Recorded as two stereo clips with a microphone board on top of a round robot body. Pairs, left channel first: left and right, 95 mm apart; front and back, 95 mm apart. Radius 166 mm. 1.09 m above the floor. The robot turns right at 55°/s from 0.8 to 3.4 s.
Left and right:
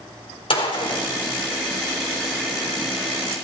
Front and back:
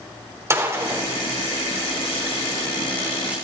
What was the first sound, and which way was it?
A gunshot, 120° left.